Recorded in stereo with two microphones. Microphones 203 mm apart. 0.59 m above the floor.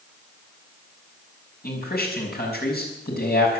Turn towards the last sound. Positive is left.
turn(degrees=55)  # may be behind; listen again after turning